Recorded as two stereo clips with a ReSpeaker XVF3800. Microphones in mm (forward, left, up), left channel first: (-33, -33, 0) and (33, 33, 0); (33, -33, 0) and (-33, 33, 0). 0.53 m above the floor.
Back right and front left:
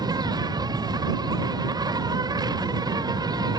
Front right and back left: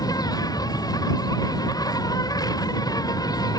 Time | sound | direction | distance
0.0 | an insect | straight ahead | ?